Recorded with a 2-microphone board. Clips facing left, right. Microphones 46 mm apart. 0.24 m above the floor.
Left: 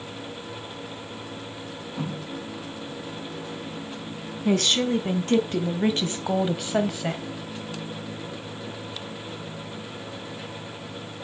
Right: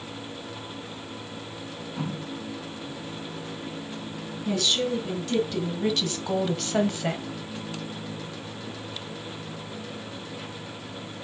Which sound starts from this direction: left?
A woman speaking, at 4.5 s.